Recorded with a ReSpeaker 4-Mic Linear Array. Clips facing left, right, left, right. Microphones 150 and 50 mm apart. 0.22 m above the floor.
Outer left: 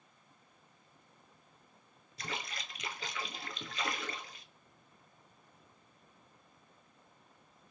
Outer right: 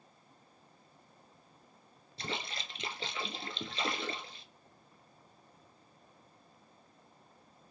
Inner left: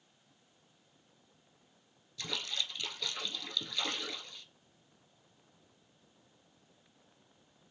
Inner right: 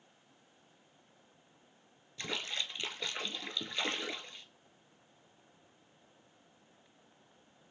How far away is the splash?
About 0.6 m.